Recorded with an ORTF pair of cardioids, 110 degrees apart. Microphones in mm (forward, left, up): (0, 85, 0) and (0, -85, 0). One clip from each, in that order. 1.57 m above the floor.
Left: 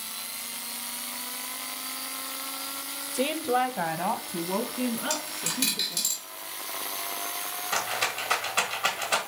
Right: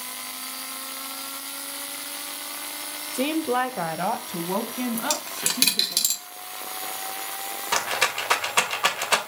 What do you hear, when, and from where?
3.1 s a woman speaking: straight ahead, 0.6 m; by 6.0 s 25° right, 3 m
5.0 s a dropped coin: 55° right, 3.5 m
7.7 s a rattle: 40° right, 2 m